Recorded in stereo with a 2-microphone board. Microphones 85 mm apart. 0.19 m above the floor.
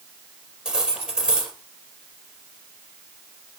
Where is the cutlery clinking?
10° right (ahead or behind), 3 m.